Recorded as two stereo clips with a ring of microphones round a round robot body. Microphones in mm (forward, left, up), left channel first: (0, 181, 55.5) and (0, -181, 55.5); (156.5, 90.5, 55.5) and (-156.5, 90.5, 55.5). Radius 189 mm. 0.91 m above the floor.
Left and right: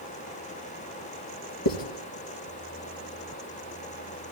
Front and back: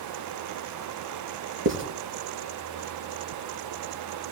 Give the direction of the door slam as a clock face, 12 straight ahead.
No door slam in this recording.